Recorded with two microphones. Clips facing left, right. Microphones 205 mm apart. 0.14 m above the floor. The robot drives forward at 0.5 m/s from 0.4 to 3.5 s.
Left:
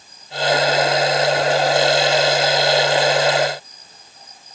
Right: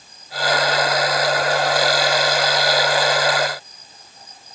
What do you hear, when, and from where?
Only background noise.